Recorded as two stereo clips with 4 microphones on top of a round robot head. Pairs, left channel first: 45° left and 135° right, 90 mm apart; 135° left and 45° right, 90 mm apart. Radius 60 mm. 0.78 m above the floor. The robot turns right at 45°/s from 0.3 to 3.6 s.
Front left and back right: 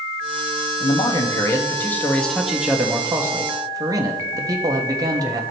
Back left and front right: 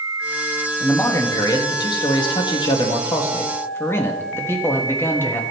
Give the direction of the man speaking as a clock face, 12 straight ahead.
10 o'clock.